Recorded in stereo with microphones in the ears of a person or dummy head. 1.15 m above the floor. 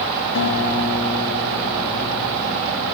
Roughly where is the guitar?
Left.